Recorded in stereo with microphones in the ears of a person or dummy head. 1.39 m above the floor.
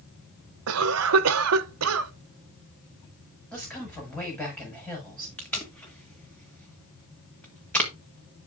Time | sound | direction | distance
0.7 | a cough | 80° right | 0.9 m
3.5 | a woman speaking | 5° left (ahead or behind) | 6 m
5.4 | tape being pulled | 5° left (ahead or behind) | 1.8 m